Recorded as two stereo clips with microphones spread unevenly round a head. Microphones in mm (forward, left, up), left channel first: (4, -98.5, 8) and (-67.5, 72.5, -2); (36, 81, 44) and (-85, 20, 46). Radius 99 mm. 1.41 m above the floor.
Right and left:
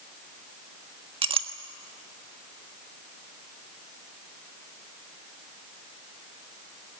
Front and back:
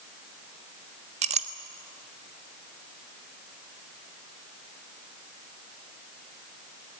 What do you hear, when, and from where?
1.2 s a clink: 175° left, 1.4 m